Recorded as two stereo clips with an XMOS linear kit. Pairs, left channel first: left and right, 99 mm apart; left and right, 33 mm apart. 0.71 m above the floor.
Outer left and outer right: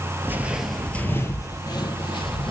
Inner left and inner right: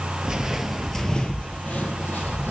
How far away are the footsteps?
About 0.7 m.